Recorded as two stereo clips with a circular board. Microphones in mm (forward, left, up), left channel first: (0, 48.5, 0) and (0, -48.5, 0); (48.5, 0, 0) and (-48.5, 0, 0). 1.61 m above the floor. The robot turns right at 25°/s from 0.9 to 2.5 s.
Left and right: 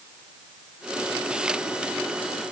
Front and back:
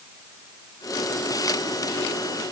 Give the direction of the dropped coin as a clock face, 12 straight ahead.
I don't hear a dropped coin.